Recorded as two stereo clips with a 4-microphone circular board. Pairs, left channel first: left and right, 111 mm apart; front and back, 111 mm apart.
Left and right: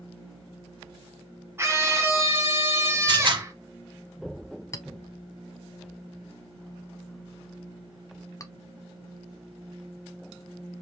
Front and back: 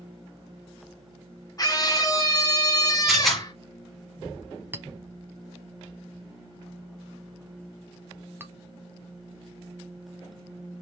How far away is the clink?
About 0.7 m.